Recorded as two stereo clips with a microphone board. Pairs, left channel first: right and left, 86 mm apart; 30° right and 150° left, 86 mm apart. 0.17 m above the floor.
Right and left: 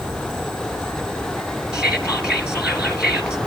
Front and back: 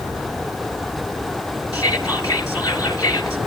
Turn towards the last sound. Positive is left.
turn(degrees=15)